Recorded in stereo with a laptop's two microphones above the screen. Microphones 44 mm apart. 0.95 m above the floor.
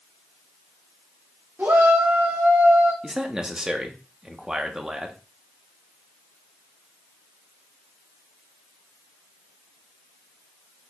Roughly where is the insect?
I don't hear an insect.